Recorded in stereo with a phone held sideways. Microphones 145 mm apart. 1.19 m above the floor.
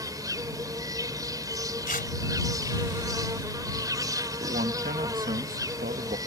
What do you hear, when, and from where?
0.0 s an insect: 25° right (ahead or behind)
1.9 s tearing paper: 70° left (ahead or behind)
4.4 s a man speaking: 75° right (ahead or behind)